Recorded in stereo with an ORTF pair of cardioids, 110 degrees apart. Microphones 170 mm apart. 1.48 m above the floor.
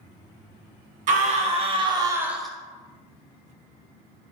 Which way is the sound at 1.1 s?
50° right.